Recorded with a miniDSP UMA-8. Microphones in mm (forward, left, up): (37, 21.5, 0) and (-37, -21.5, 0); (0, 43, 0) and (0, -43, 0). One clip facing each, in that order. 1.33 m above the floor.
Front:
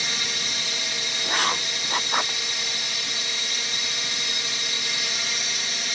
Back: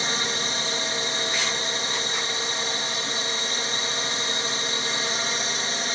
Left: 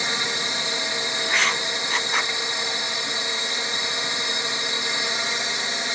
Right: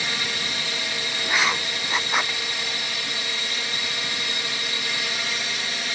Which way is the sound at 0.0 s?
155° left.